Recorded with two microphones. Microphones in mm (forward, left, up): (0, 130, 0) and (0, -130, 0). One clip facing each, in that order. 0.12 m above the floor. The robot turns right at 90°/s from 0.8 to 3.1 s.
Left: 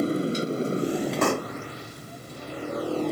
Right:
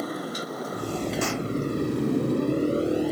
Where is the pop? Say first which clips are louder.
Left 3 dB; 70° left (ahead or behind); by 1.5 s 45° left (ahead or behind).